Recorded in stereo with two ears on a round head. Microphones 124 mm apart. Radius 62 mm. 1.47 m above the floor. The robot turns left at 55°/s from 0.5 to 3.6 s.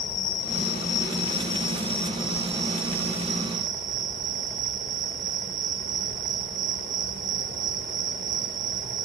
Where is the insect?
90° left, 1.0 m; by 9.1 s 80° right, 1.0 m.